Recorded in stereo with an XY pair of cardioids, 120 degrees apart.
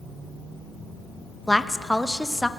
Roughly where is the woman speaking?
Ahead.